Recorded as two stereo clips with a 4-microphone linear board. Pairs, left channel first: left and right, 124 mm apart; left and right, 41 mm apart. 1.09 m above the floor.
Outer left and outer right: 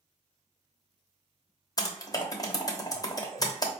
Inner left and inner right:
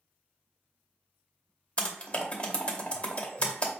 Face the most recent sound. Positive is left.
turn(degrees=30)  # may be behind; listen again after turning